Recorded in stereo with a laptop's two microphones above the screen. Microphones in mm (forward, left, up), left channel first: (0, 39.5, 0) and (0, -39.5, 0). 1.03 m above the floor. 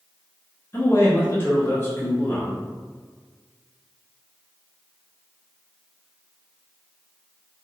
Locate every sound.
0.7 s a man speaking: 30° left (ahead or behind), 0.6 m